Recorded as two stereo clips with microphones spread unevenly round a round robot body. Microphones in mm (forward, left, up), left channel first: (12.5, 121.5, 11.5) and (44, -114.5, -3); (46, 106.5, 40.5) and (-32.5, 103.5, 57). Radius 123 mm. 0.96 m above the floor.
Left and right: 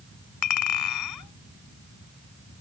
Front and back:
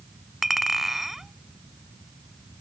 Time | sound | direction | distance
0.4 | a clink | 95° left | ?